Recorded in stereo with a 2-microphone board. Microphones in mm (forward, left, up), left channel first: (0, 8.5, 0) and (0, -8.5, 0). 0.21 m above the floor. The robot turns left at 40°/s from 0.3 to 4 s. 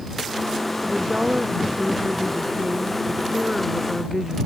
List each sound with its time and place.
0.8 s a woman speaking: 30° right; by 4.4 s 160° right